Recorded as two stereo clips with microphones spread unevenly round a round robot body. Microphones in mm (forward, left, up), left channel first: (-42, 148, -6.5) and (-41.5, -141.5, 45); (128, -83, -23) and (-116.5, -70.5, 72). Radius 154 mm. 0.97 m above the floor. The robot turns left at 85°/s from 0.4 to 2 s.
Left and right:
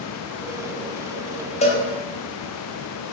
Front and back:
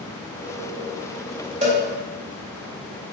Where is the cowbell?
160° left, 0.7 m; by 1.8 s 145° left, 0.7 m.